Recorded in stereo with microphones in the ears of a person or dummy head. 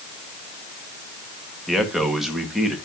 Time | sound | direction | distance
1.7 | a man speaking | centre (ahead or behind) | 1.6 m